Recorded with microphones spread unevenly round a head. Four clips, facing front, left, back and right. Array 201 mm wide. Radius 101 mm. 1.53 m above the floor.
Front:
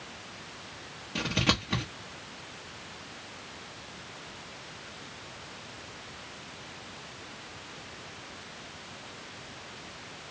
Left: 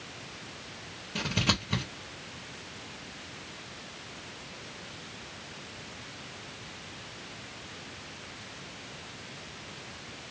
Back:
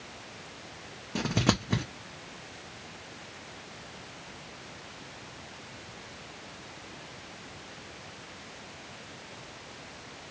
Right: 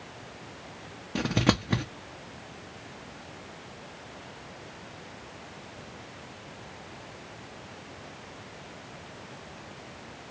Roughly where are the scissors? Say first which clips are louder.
Right 6 dB, back 2 dB; behind right.